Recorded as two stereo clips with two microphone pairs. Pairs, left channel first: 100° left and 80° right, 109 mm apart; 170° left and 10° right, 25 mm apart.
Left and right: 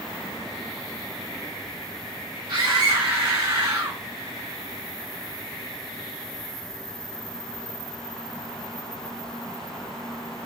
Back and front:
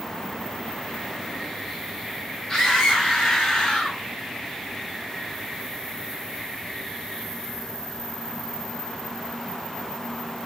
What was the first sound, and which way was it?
A scream, 125° right.